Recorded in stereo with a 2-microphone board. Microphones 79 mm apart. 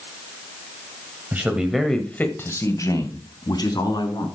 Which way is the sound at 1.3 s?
25° right (ahead or behind).